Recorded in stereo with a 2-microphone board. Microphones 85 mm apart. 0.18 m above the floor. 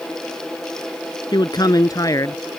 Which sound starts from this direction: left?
A man speaking, at 1.3 s.